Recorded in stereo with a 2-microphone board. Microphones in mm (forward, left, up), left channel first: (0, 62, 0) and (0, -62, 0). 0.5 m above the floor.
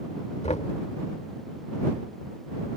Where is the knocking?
65° left (ahead or behind).